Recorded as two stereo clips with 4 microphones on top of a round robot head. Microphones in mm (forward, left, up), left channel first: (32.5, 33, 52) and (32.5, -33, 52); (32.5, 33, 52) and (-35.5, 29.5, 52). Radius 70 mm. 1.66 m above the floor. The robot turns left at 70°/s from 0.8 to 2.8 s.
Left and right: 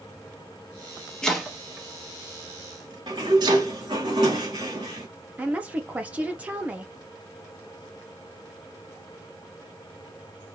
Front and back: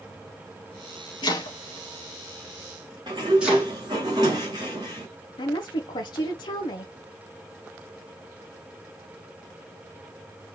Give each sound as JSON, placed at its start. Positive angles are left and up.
{"t": 1.2, "sound": "chopping", "azimuth_deg": 15, "distance_m": 2.5}
{"t": 3.1, "sound": "a sliding door", "azimuth_deg": -130, "distance_m": 1.6}
{"t": 5.4, "sound": "a woman speaking", "azimuth_deg": -20, "distance_m": 0.8}